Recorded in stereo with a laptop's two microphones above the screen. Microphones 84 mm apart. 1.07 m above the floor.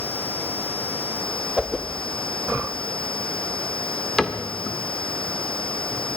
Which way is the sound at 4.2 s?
5° left (ahead or behind).